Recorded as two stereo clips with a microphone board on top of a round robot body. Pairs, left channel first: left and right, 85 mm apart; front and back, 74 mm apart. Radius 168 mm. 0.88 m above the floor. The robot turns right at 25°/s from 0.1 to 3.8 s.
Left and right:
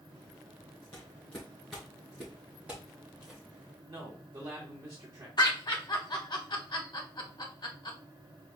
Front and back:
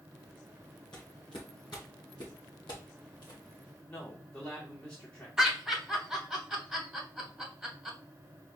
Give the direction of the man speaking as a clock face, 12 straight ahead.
2 o'clock.